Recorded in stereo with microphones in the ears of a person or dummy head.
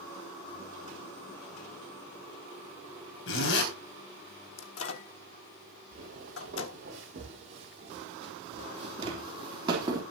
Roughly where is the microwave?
Left.